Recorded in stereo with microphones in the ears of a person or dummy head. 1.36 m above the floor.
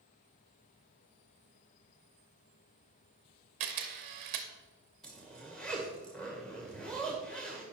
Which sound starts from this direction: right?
A camera shutter, at 3.6 s.